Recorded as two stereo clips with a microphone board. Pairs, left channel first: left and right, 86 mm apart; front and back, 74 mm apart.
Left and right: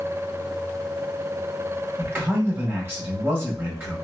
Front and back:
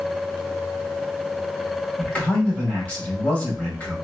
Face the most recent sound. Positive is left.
turn(degrees=-50)